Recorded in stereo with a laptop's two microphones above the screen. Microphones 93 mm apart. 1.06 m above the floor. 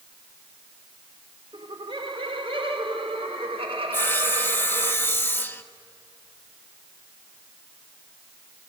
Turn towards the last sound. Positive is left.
turn(degrees=20)  # may be behind; listen again after turning